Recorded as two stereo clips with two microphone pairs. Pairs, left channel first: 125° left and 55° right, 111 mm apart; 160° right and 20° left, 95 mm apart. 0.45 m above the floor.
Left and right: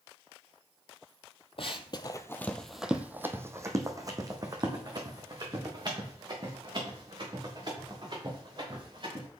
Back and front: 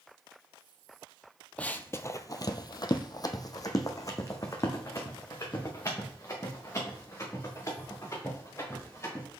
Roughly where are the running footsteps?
Behind left.